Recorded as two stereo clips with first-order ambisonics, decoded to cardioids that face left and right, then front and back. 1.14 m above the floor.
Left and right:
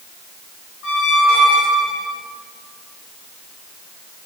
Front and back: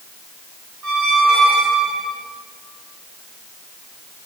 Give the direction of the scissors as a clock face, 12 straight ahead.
No scissors in this recording.